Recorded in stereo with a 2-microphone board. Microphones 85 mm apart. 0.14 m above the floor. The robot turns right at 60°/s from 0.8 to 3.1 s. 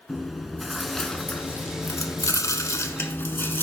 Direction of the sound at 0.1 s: Straight ahead.